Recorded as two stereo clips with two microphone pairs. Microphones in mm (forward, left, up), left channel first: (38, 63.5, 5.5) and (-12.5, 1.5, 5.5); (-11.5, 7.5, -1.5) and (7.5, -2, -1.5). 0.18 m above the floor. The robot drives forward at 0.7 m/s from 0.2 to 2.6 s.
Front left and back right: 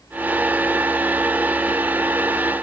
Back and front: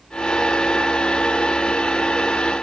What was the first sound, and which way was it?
Only background noise.